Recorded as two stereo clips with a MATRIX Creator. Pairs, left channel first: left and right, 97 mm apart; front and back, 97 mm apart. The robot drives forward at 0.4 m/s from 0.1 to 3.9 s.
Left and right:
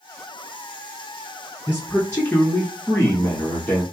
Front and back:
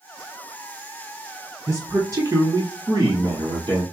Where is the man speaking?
140° left, 1.2 m; by 3.8 s 165° left, 1.7 m.